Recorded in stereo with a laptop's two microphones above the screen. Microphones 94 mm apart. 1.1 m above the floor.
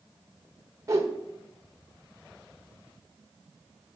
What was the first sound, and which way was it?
A whoosh, 30° right (ahead or behind).